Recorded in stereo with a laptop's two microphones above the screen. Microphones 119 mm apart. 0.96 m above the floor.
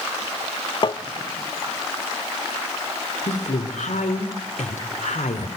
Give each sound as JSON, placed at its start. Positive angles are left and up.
{"t": 0.8, "sound": "tapping", "side_deg": 40, "distance_m": 0.6}
{"t": 3.3, "sound": "a woman speaking", "side_deg": 85, "distance_m": 2.5}